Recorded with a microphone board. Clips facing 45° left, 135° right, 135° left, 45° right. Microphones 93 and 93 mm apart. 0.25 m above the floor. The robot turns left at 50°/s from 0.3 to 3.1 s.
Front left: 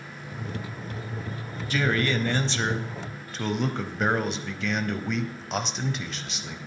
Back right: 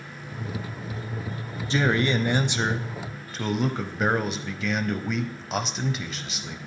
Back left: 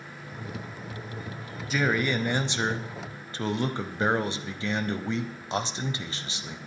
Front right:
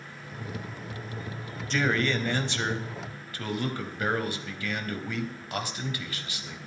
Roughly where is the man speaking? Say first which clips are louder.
Back right 2 dB, back left 1 dB; behind right.